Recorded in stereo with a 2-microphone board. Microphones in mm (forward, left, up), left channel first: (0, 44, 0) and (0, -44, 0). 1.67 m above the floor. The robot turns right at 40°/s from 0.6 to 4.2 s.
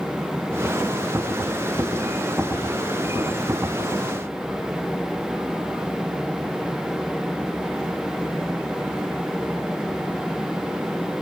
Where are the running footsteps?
I don't hear running footsteps.